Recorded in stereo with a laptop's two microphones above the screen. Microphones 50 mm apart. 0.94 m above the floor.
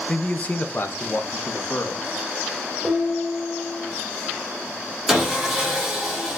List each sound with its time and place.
0.1 s a man speaking: 15° left (ahead or behind), 0.5 m; by 2.2 s 65° left (ahead or behind), 1.2 m
2.8 s dishes clattering: 10° left (ahead or behind), 2.5 m
5.1 s sawing: 10° right (ahead or behind), 1.6 m